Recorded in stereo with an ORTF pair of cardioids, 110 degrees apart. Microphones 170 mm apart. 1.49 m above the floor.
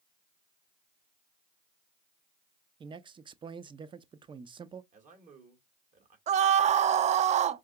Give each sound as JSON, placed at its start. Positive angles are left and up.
{"t": 2.8, "sound": "a man speaking", "azimuth_deg": -30, "distance_m": 0.6}
{"t": 4.9, "sound": "a man speaking", "azimuth_deg": -50, "distance_m": 1.8}
{"t": 6.3, "sound": "a scream", "azimuth_deg": -45, "distance_m": 0.5}